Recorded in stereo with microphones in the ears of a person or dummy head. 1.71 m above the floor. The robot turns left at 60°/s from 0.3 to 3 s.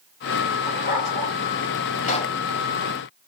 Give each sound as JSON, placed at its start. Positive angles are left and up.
{"t": 0.7, "sound": "a dog barking", "azimuth_deg": 125, "distance_m": 3.0}
{"t": 2.0, "sound": "a pop", "side_deg": 40, "distance_m": 1.3}